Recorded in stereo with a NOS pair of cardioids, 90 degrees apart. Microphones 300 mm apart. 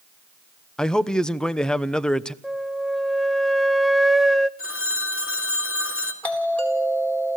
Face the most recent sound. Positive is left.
turn(degrees=5)